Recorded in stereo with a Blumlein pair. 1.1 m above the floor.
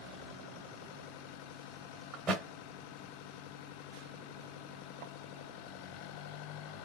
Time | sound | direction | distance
2.1 | a thud | 25° right | 1.5 m